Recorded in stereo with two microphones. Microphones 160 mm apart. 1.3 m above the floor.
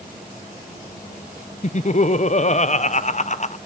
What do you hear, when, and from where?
1.6 s laughter: 50° left (ahead or behind), 0.7 m